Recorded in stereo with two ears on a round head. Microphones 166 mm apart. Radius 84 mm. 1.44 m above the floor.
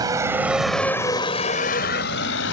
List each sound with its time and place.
0.0 s a vehicle: 20° right (ahead or behind); by 2.5 s 75° left (ahead or behind)